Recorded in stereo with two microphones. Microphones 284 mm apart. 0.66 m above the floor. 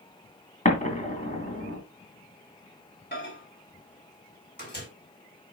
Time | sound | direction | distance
0.7 | an explosion | 25° left (ahead or behind) | 2.5 m
3.1 | a microwave | 35° left (ahead or behind) | 3 m